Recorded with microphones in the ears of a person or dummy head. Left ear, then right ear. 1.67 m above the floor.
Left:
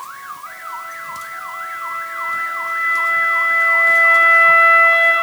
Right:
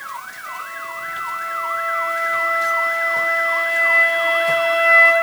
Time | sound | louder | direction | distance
0.5 | a flute | right 2 dB | 15° right (ahead or behind) | 3.5 m